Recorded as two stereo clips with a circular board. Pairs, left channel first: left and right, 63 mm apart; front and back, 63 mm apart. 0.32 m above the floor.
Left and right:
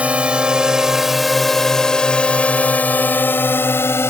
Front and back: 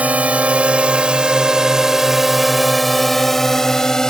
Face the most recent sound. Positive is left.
turn(degrees=75)